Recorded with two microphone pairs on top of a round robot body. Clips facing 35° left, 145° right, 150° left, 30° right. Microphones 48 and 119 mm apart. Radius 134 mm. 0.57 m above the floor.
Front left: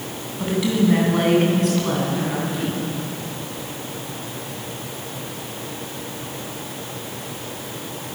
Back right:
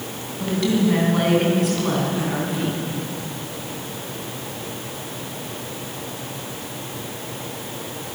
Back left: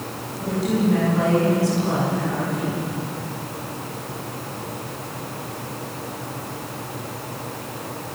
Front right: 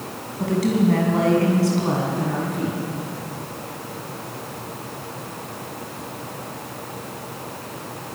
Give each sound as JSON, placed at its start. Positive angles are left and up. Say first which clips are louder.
{"t": 0.4, "sound": "a woman speaking", "louder": "even, front right 2 dB", "azimuth_deg": -45, "distance_m": 6.5}